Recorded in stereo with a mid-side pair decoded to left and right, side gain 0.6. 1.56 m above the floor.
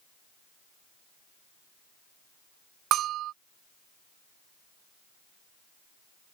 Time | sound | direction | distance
2.9 | a bell | 60° right | ?